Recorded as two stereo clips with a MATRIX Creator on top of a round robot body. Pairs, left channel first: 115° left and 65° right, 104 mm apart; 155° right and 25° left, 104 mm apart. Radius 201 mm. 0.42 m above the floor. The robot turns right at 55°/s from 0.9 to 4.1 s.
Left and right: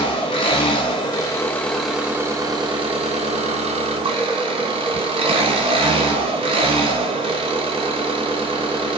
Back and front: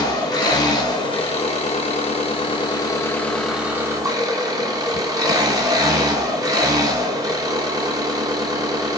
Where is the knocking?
I don't hear knocking.